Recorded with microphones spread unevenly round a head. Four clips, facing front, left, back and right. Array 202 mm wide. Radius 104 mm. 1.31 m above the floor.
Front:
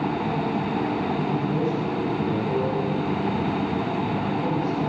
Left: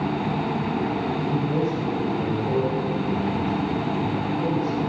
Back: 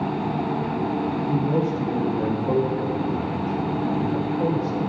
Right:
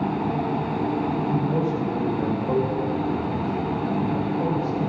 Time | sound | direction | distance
1.3 | a man speaking | 170° right | 3 m